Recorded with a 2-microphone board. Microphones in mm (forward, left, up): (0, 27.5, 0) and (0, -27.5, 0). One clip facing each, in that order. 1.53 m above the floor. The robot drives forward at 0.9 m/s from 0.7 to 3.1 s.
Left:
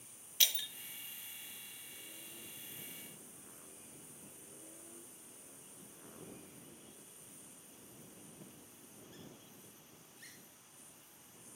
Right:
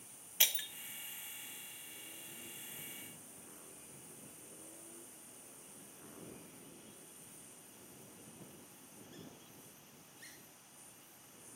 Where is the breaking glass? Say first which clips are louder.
Left 1 dB; 25° right (ahead or behind), 0.7 m.